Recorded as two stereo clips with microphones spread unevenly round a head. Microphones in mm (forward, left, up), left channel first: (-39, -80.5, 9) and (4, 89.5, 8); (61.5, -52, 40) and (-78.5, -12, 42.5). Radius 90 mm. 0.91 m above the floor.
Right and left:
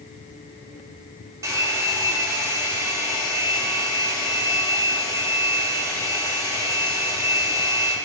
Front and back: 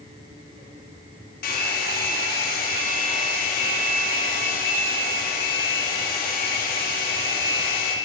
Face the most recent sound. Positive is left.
turn(degrees=5)